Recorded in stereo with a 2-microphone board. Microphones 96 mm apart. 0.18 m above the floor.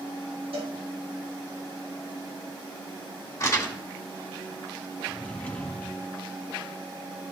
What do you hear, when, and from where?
0.5 s a cowbell: 70° right (ahead or behind), 3 m
3.4 s crumpling: 30° left (ahead or behind), 1.8 m
5.1 s a drawer: 15° left (ahead or behind), 1.5 m